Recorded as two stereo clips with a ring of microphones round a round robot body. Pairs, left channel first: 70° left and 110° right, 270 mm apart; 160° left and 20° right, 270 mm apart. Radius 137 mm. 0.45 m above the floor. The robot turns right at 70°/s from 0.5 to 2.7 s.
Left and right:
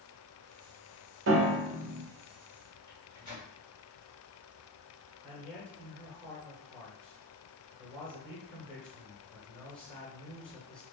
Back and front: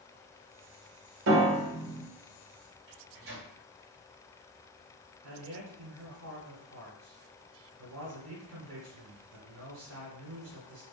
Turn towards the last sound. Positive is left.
turn(degrees=-15)